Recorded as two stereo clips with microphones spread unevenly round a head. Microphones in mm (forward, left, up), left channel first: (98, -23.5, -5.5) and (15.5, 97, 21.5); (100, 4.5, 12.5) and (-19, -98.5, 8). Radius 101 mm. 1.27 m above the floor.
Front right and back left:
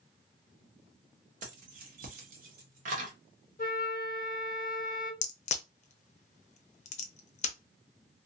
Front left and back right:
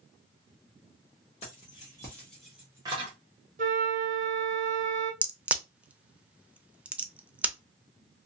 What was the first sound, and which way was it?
Keys jangling, 100° left.